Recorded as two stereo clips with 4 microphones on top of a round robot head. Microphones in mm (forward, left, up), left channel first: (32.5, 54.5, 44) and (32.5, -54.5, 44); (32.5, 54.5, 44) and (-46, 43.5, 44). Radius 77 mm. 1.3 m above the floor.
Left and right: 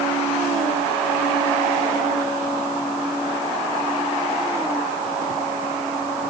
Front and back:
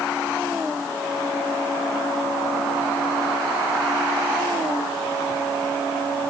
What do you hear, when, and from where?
Only background noise.